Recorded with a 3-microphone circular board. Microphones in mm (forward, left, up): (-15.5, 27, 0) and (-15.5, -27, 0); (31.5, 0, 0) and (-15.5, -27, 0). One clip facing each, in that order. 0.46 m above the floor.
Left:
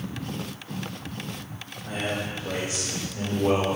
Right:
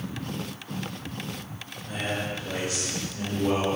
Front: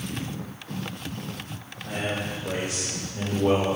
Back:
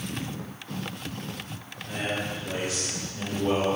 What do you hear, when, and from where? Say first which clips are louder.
1.9 s a man speaking: left 1 dB, front 1 dB; 35° left, 2.5 m; by 3.8 s 55° left, 1.0 m